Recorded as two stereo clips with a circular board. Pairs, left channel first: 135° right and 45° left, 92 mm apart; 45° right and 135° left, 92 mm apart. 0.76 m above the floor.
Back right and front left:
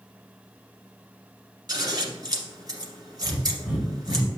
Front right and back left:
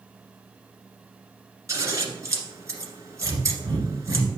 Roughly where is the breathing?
Behind left.